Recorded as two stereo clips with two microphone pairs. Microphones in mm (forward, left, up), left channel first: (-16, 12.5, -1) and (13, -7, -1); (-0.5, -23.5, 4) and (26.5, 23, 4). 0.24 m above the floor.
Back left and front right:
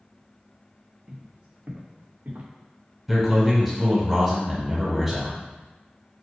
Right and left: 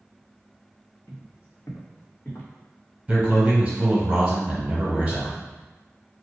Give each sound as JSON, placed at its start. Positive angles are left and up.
{"t": 1.1, "sound": "footsteps", "azimuth_deg": -100, "distance_m": 1.4}
{"t": 3.1, "sound": "a man speaking", "azimuth_deg": 45, "distance_m": 1.2}